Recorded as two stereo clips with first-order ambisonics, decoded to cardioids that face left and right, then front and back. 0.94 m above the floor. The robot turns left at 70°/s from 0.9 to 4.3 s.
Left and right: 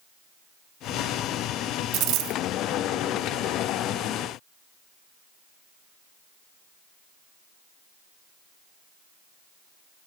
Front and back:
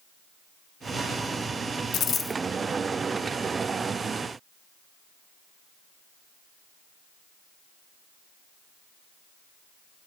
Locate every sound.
1.9 s a dropped coin: 50° right, 0.6 m; by 2.4 s 85° right, 0.6 m